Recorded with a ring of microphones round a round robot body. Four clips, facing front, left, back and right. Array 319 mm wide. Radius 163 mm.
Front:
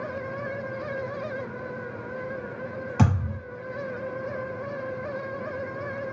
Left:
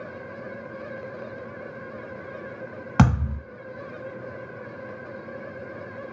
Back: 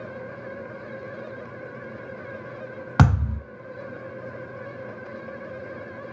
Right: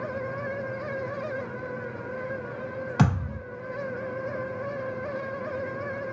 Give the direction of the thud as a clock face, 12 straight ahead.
7 o'clock.